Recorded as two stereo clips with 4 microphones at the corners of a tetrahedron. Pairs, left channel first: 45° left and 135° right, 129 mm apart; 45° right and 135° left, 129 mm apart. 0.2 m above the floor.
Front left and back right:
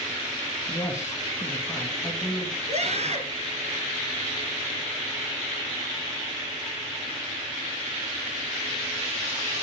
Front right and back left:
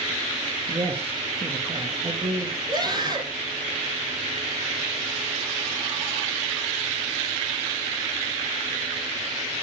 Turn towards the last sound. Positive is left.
turn(degrees=-170)